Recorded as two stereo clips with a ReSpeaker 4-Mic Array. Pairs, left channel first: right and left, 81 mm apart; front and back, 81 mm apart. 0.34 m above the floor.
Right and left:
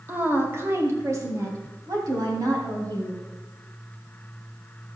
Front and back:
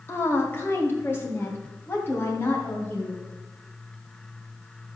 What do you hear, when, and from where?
0.1 s a woman speaking: 40° left, 1.6 m; by 3.2 s 60° left, 3.5 m